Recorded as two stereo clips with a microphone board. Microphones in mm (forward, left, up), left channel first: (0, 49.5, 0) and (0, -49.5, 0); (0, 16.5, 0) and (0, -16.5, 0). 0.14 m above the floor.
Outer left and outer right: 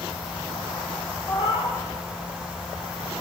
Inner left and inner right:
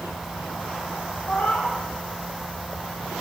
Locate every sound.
1.3 s a cat meowing: 55° left (ahead or behind), 3 m